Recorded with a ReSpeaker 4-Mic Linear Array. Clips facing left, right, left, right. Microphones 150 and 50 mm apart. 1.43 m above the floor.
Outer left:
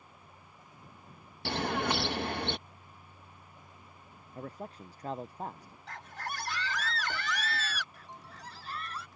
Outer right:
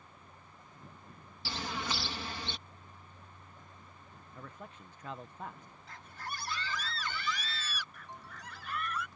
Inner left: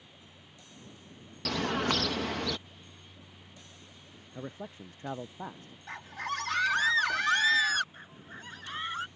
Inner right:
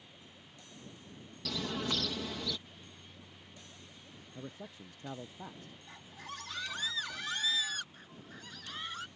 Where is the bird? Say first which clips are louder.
Outer left 7 dB, inner left 7 dB; 60° left (ahead or behind).